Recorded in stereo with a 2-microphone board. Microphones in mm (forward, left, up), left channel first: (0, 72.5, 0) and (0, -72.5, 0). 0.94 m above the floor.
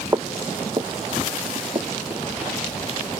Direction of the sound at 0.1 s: 25° right (ahead or behind).